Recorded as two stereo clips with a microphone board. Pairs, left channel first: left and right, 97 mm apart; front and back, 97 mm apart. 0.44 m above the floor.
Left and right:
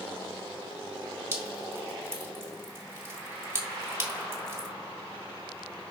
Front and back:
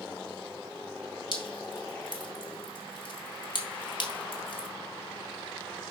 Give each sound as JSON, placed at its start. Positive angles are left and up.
{"t": 1.3, "sound": "dripping", "azimuth_deg": -30, "distance_m": 2.0}